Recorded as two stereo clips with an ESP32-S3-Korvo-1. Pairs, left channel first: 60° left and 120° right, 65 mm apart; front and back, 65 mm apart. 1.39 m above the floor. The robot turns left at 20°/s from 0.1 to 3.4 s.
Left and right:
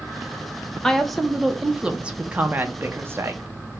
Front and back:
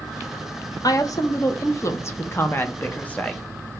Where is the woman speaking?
20° right, 0.6 m; by 3.4 s 75° right, 0.6 m.